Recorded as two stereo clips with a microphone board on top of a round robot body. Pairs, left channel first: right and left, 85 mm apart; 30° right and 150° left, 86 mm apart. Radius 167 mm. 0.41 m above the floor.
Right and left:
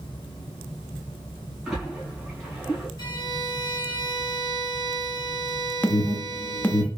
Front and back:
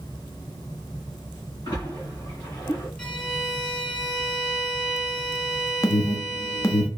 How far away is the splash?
About 2.5 m.